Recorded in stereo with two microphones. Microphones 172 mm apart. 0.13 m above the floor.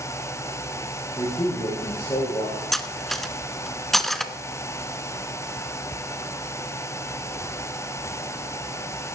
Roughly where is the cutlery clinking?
Centre.